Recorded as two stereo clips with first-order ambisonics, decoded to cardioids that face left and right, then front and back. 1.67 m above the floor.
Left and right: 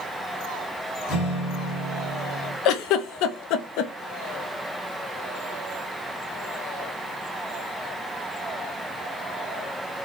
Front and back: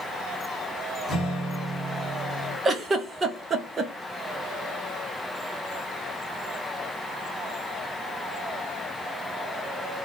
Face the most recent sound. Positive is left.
turn(degrees=110)